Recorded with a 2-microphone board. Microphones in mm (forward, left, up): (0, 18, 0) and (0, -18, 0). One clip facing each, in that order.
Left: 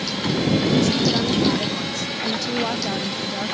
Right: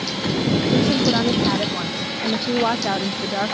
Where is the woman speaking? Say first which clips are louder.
Right 1 dB; 25° right (ahead or behind); by 3.5 s 30° right (ahead or behind).